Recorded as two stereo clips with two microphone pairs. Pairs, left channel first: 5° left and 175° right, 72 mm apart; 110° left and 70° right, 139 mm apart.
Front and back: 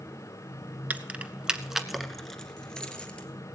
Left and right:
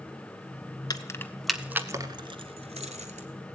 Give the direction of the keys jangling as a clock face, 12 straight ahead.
8 o'clock.